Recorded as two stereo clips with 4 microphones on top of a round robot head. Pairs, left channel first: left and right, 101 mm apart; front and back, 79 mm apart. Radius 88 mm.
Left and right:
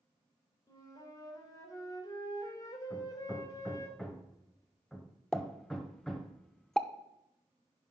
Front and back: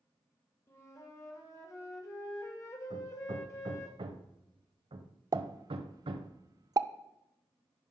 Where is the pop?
175° left, 0.5 m.